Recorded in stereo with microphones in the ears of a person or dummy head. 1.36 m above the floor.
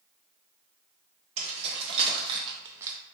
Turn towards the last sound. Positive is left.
turn(degrees=-15)  # may be behind; listen again after turning